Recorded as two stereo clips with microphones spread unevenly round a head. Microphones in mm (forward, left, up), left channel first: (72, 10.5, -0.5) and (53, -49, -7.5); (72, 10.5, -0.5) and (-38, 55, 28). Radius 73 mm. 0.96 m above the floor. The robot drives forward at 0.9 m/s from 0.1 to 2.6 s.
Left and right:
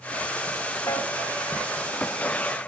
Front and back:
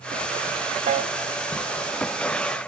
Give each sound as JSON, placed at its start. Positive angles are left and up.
{"t": 0.9, "sound": "a piano", "azimuth_deg": 130, "distance_m": 1.0}